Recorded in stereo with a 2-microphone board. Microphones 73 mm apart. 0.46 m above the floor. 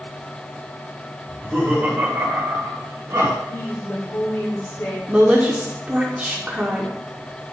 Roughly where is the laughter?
Centre.